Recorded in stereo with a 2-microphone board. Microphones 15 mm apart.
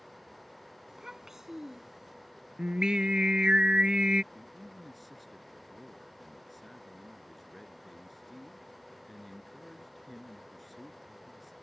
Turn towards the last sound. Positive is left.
turn(degrees=5)  # may be behind; listen again after turning